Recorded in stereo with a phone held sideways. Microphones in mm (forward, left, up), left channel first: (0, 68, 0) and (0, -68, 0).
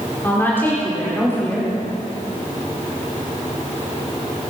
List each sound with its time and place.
0.2 s a woman speaking: 15° left (ahead or behind), 4 m